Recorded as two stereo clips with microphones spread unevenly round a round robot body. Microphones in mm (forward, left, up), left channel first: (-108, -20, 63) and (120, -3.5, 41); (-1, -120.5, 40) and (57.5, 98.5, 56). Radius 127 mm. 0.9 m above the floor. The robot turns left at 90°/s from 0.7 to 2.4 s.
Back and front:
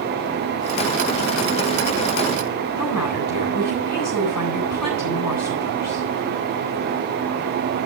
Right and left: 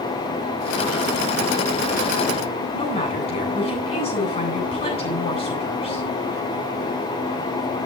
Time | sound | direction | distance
2.7 | a woman speaking | 170° right | 8.5 m